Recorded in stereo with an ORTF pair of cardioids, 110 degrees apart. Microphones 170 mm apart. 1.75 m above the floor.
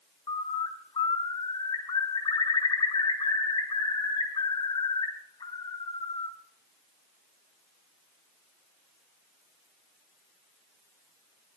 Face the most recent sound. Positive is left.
turn(degrees=30)